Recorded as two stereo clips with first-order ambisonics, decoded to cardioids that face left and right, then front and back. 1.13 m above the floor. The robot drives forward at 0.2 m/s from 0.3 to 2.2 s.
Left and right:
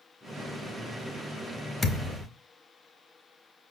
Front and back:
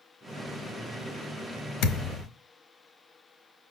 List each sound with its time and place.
1.8 s a thud: 20° left, 0.7 m; by 2.3 s 25° left, 0.6 m